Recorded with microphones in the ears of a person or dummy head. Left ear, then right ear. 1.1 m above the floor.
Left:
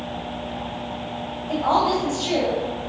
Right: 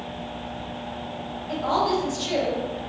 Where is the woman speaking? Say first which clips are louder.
Left 3 dB; 30° left (ahead or behind), 1.4 m.